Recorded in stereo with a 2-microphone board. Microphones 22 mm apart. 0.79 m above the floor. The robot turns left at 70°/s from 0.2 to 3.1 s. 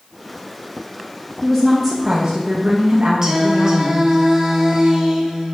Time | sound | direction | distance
1.4 | a woman speaking | 25° left | 0.5 m
3.2 | singing | 25° right (ahead or behind) | 0.7 m